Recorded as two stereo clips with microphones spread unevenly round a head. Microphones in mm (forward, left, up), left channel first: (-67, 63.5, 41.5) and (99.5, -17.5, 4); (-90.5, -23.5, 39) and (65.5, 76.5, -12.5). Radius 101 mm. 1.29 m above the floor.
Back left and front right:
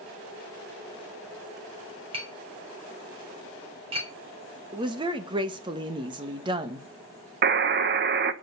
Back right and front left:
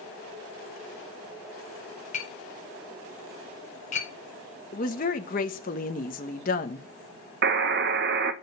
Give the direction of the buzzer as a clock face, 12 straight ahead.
12 o'clock.